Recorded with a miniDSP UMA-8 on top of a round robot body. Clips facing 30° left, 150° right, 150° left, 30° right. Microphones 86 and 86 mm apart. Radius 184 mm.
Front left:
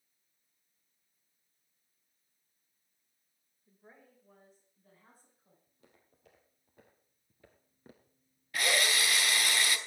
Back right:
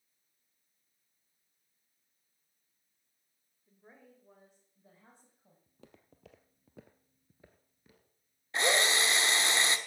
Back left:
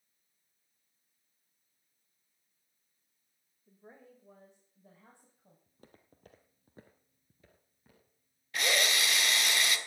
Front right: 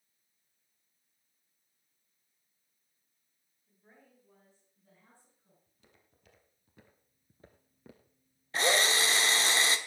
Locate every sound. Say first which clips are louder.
3.7 s a woman speaking: back right 1 dB, back left 7 dB; 115° left, 2.5 m; by 5.6 s 150° left, 4 m
5.7 s footsteps: back right 10 dB, back left 10 dB; 165° right, 1.4 m; by 9.5 s straight ahead, 1.6 m
8.5 s a drill: back right 2 dB, front right 3 dB; 85° right, 1.3 m